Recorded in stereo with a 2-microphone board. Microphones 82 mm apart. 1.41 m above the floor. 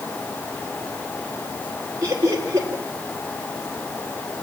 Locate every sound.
2.0 s laughter: 35° right (ahead or behind), 3.5 m